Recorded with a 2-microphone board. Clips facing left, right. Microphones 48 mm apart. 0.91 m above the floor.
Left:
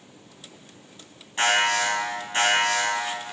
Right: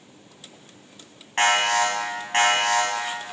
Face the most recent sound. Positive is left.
turn(degrees=-55)  # may be behind; listen again after turning